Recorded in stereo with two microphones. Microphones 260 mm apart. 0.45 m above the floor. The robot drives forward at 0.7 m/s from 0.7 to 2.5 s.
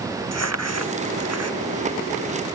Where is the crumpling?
75° right (ahead or behind).